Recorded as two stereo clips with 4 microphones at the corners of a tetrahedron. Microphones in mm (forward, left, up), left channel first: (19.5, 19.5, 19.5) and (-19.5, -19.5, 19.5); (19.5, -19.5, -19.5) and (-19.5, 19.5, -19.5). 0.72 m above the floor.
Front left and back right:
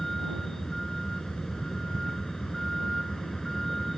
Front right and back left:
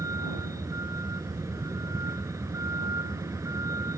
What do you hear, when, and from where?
0.0 s a vehicle: 130° left